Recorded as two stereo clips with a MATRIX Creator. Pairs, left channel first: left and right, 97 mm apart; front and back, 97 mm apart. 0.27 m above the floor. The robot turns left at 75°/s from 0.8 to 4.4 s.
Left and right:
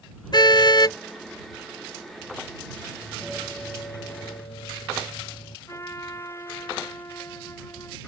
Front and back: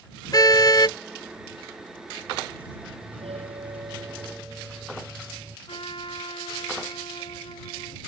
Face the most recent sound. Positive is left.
turn(degrees=30)